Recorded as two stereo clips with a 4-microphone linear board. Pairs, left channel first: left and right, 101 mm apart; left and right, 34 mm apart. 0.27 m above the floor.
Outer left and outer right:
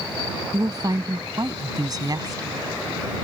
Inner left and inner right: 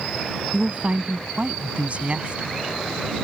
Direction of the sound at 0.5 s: 40° right (ahead or behind).